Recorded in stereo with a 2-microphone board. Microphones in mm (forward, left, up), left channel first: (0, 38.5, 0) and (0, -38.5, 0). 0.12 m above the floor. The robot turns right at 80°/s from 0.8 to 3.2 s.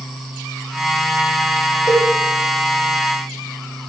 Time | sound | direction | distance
1.9 | a cowbell | 40° left (ahead or behind) | 4.5 m